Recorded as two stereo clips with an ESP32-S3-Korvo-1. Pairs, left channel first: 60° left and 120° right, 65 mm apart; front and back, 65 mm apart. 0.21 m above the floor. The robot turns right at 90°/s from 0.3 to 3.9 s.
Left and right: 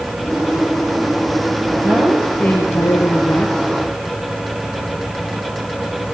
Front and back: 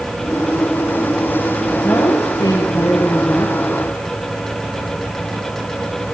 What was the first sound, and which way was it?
A woman speaking, 65° right.